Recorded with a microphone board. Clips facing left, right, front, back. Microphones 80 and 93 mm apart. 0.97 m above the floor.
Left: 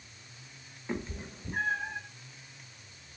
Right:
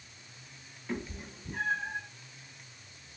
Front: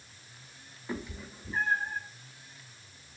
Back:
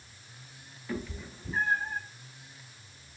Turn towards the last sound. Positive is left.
turn(degrees=95)